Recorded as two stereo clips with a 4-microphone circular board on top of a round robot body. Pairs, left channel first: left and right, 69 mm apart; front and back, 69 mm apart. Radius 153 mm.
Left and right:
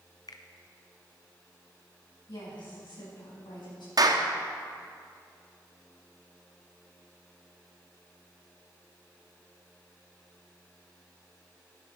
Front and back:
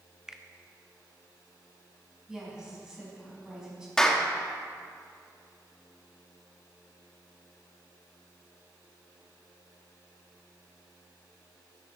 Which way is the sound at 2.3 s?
100° left.